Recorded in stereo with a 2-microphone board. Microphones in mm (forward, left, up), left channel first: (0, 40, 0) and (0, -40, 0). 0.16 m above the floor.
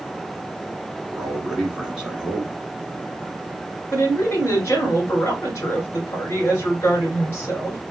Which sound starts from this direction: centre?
A man speaking, at 1.1 s.